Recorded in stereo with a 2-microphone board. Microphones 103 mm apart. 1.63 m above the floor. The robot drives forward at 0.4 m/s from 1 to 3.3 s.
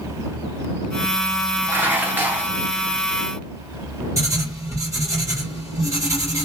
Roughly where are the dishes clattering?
Centre.